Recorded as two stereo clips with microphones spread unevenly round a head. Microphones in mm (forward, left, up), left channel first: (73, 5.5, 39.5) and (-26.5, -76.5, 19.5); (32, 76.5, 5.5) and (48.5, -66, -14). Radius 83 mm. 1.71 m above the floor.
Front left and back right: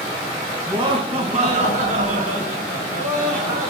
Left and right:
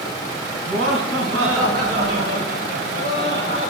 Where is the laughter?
90° right, 2.5 m; by 3.7 s 135° right, 4.5 m.